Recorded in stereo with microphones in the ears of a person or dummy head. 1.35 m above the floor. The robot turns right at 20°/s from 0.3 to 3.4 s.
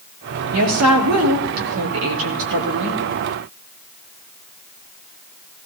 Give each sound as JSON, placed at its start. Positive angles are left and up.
{"t": 0.5, "sound": "a woman speaking", "azimuth_deg": -110, "distance_m": 2.5}